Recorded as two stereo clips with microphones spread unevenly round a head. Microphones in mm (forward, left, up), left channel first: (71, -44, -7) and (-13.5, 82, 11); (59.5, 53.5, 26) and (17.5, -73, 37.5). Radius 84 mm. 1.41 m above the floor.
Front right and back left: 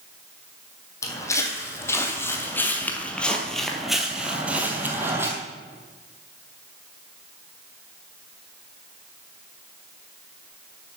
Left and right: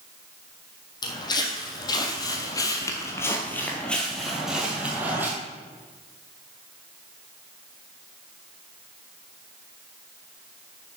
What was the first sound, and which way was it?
Footsteps, 15° left.